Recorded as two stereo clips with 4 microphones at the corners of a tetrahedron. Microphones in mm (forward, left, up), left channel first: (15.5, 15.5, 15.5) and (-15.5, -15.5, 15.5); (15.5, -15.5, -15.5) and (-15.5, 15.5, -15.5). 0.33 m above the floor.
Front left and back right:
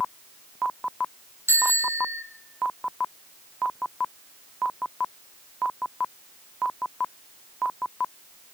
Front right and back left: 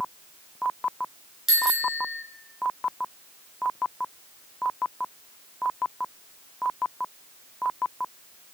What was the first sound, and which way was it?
A bicycle bell, 145° right.